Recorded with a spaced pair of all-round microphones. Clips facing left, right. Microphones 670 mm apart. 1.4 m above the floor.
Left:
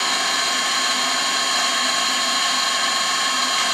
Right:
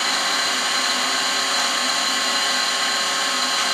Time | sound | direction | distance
0.0 | an engine running | 5° left (ahead or behind) | 0.9 m